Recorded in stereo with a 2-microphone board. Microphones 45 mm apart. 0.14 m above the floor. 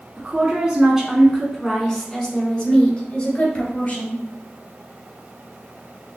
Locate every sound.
0.2 s a woman speaking: 25° right (ahead or behind), 1.1 m; by 4.2 s 35° left (ahead or behind), 2.0 m